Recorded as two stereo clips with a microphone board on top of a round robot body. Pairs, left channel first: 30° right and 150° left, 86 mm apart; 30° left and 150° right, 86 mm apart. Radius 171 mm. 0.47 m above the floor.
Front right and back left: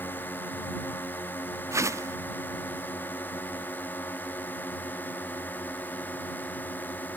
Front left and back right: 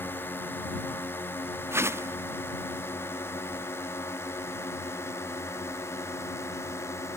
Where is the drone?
5° left; by 7.2 s 20° left.